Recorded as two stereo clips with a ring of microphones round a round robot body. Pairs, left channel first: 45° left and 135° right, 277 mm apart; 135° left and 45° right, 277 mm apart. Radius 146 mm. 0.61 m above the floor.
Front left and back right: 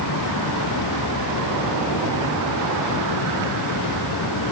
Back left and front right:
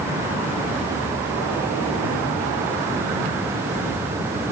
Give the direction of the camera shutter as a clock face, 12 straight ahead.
I don't hear a camera shutter.